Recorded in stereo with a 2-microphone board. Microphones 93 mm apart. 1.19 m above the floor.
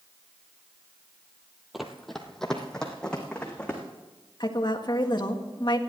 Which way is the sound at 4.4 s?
50° left (ahead or behind).